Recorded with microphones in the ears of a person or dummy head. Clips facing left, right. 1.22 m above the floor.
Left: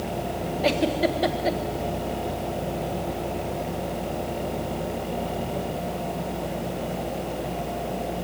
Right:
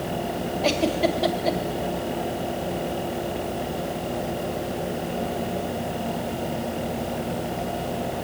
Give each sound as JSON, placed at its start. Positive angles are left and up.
{"t": 0.6, "sound": "a giggle", "side_deg": 25, "distance_m": 1.5}